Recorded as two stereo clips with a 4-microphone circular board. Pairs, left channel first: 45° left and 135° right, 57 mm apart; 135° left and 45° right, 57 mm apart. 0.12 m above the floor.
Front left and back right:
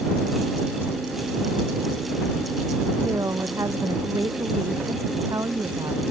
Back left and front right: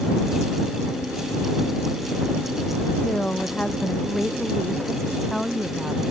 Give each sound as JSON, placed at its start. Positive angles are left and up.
{"t": 3.0, "sound": "a woman speaking", "azimuth_deg": -155}